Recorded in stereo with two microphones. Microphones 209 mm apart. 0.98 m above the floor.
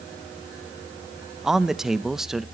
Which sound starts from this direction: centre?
A man speaking, at 1.4 s.